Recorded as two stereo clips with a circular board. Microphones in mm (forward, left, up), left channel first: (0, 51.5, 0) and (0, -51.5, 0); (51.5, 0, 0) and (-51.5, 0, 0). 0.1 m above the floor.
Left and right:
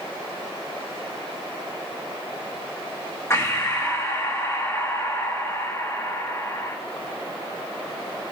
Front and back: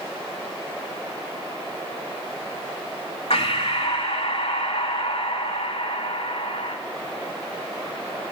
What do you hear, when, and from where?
3.3 s breathing: 25° left, 1.6 m